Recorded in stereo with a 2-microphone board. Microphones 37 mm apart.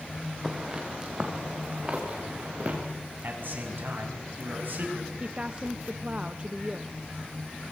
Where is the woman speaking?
30° right (ahead or behind), 0.8 m.